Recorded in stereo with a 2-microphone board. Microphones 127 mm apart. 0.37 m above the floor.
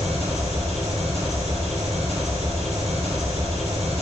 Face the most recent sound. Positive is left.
turn(degrees=60)  # may be behind; listen again after turning